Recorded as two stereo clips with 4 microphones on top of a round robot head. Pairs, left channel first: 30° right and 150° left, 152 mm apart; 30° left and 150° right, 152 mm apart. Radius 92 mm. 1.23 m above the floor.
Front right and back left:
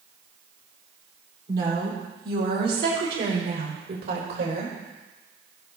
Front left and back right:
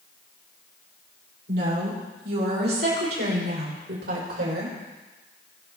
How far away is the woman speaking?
About 5 m.